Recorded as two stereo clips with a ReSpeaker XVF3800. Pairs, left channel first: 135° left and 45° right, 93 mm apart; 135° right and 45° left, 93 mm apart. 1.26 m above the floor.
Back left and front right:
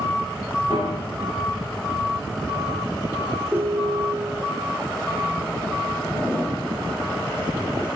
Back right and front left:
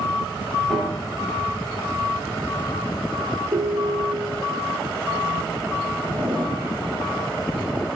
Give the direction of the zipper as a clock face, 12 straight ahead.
10 o'clock.